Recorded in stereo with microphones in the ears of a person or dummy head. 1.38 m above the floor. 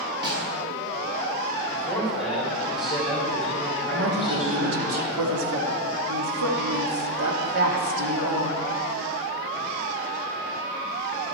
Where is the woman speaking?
80° right, 2.5 m.